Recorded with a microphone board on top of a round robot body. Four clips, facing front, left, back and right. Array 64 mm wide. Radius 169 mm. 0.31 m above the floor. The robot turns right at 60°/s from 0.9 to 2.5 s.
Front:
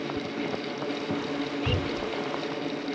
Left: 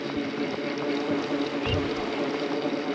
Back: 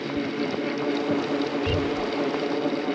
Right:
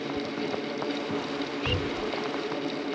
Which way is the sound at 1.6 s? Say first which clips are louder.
Left 2 dB, back 4 dB; 15° right.